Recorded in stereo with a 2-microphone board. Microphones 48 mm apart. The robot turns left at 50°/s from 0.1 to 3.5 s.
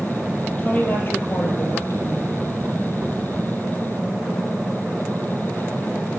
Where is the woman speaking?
160° left, 4 m; by 2.3 s 70° left, 4 m.